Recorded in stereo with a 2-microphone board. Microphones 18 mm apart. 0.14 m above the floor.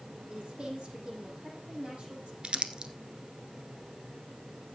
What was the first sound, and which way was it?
A woman speaking, 50° right (ahead or behind).